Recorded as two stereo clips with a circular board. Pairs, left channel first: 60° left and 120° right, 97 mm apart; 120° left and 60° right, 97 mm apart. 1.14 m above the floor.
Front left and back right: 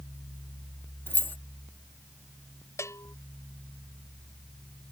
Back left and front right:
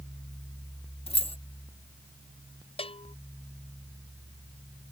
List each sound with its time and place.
1.1 s keys jangling: 130° left
2.8 s a bell: 120° left